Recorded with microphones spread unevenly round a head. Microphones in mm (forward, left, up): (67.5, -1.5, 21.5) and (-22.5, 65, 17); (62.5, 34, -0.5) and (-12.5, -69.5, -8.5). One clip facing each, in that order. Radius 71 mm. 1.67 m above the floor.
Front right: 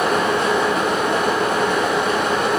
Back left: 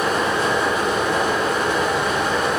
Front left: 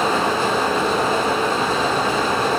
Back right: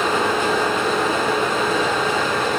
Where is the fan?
Straight ahead, 2 m.